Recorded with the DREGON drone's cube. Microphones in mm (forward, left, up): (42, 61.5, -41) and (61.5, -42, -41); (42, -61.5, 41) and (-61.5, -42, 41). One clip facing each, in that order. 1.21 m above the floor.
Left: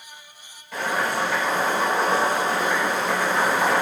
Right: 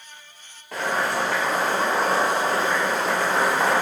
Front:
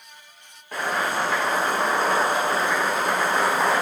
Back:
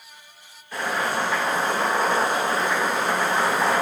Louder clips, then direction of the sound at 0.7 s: Even, even; 55° right.